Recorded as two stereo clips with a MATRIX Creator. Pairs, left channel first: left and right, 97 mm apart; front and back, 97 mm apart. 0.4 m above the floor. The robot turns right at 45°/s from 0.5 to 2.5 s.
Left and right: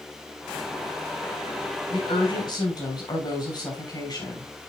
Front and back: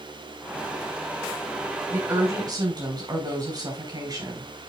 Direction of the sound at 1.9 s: 105° left.